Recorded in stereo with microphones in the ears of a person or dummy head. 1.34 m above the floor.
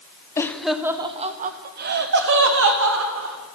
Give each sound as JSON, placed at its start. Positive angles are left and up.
{"t": 0.4, "sound": "laughter", "side_deg": 15, "distance_m": 0.6}